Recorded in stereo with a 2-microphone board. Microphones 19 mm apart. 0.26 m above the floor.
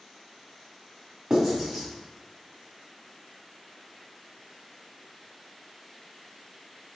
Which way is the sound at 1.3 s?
25° right (ahead or behind).